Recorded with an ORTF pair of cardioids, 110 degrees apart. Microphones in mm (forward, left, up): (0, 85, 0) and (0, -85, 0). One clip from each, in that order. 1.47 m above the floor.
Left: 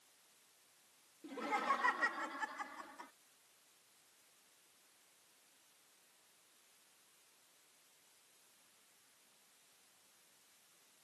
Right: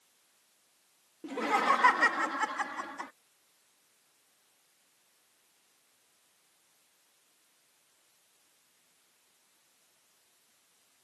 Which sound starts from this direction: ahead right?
Laughter, at 1.2 s.